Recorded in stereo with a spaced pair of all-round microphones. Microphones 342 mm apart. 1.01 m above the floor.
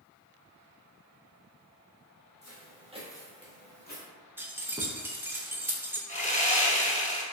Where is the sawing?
20° left (ahead or behind), 0.8 m.